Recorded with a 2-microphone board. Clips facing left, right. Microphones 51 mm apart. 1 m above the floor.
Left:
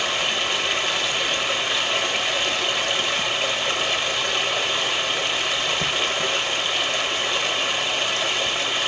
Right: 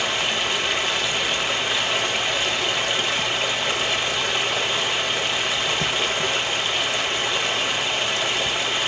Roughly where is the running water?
Centre.